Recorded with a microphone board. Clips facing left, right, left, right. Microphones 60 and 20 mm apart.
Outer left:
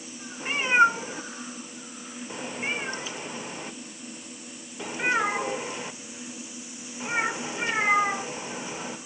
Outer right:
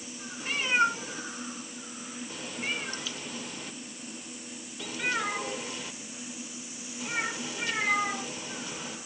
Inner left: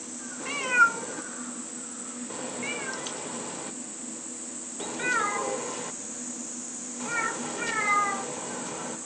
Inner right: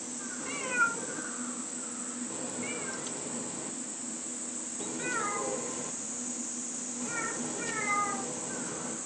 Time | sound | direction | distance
0.4 | a cat meowing | 30° left (ahead or behind) | 1.1 m